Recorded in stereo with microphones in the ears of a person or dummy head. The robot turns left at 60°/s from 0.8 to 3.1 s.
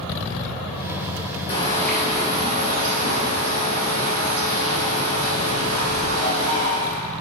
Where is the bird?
30° left, 0.7 m; by 7.0 s 70° right, 0.7 m.